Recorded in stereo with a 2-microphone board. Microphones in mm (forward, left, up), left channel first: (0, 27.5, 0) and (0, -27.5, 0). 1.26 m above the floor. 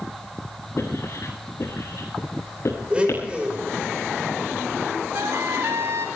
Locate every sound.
0.8 s writing: 55° left (ahead or behind), 8 m
2.9 s a blender: 20° right (ahead or behind), 5.5 m
5.1 s a trumpet: 55° right (ahead or behind), 2 m